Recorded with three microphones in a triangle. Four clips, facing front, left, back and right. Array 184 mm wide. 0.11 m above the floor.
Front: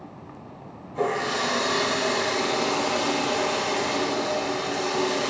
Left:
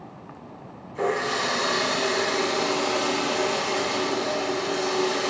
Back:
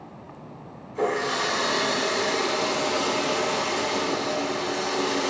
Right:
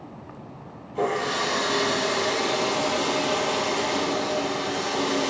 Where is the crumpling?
I don't hear crumpling.